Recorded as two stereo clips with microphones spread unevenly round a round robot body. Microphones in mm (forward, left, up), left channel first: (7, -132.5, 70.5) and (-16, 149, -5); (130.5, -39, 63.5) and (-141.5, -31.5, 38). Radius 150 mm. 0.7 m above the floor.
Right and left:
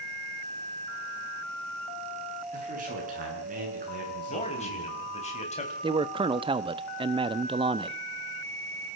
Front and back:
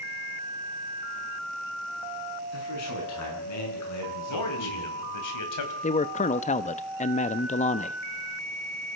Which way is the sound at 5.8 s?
55° left.